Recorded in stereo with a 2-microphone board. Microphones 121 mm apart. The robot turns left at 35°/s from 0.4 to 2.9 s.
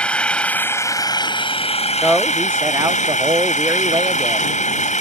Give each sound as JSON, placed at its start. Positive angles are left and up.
{"t": 0.0, "sound": "an engine running", "azimuth_deg": 170}
{"t": 2.0, "sound": "a man speaking", "azimuth_deg": 0}